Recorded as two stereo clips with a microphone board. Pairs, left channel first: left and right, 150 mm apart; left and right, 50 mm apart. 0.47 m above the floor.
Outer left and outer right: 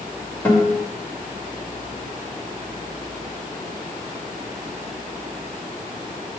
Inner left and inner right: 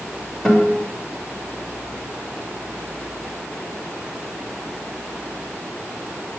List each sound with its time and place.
0.5 s a guitar: 10° left (ahead or behind), 1.8 m